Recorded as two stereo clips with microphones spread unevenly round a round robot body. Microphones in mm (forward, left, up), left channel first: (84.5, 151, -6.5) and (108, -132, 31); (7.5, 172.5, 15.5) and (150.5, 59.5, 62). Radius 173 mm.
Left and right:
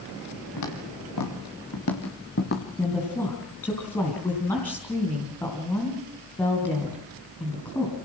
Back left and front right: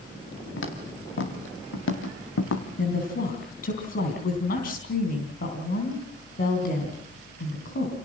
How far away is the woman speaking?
About 3 m.